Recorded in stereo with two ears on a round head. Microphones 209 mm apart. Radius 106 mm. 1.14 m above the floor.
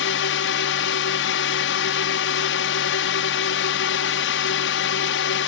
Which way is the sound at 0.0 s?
60° left (ahead or behind).